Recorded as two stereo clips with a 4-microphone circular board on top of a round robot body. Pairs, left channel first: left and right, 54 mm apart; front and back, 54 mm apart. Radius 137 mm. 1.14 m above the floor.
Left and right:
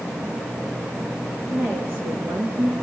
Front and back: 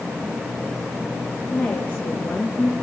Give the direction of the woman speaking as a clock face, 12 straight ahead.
2 o'clock.